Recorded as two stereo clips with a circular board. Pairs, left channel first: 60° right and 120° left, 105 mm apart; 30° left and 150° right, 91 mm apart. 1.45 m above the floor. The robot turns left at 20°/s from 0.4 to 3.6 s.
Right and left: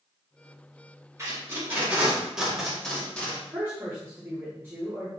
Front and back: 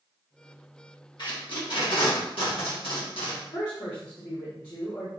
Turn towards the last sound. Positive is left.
turn(degrees=55)